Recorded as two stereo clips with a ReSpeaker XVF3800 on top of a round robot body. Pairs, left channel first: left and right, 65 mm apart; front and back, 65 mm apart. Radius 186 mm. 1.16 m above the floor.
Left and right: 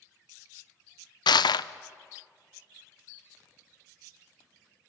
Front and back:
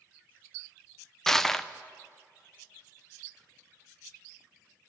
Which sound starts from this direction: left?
Crushing, at 1.3 s.